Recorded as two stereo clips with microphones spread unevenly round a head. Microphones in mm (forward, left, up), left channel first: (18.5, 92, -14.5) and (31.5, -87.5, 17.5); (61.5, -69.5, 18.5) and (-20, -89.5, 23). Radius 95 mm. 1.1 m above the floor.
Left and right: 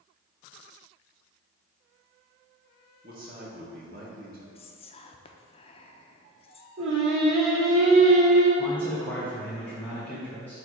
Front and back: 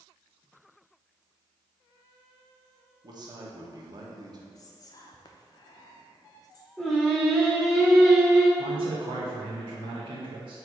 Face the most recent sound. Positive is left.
turn(degrees=175)